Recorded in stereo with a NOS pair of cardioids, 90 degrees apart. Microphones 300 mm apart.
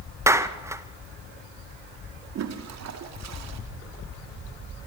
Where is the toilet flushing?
65° right, 2.5 m.